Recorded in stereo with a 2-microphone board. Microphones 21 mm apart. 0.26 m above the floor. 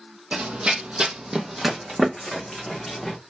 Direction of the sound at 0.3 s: 75° right (ahead or behind).